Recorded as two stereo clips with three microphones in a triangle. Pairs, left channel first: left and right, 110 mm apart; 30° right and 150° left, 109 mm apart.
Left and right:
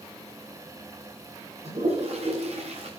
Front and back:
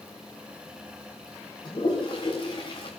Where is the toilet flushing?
75° right, 7.5 m.